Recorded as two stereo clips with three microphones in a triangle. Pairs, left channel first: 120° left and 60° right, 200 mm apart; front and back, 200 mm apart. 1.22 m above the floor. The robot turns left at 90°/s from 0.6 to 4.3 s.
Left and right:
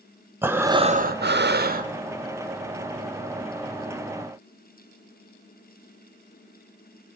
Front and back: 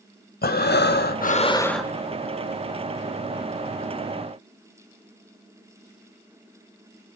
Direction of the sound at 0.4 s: 20° left.